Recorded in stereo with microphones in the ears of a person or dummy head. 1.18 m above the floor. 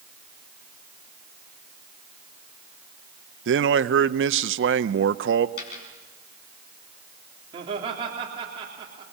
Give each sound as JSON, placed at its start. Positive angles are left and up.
{"t": 3.5, "sound": "a man speaking", "side_deg": -75, "distance_m": 0.8}
{"t": 5.6, "sound": "a dropped coin", "side_deg": 65, "distance_m": 5.0}
{"t": 7.5, "sound": "laughter", "side_deg": -30, "distance_m": 3.5}